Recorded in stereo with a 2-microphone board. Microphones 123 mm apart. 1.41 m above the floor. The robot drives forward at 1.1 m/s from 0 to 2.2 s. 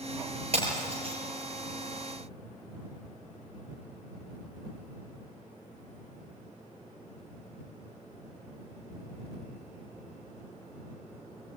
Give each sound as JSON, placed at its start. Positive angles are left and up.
{"t": 0.5, "sound": "breaking glass", "side_deg": -50, "distance_m": 6.5}